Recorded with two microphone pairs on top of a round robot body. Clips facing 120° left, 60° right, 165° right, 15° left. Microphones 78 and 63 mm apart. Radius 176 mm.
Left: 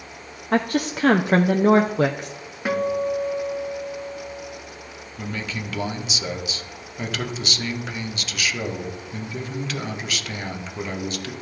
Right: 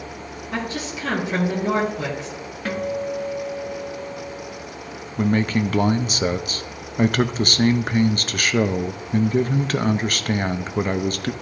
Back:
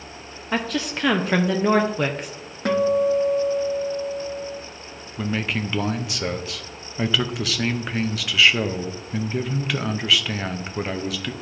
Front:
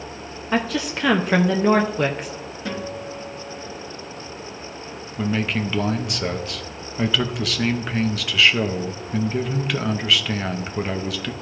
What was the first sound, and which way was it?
A woman speaking, 95° left.